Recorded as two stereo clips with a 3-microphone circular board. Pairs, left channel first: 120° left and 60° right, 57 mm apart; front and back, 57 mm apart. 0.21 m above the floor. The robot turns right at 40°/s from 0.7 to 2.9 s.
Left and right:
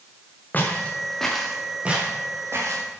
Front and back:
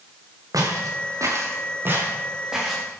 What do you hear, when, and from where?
0.5 s footsteps: straight behind, 4.5 m; by 2.9 s 85° right, 6 m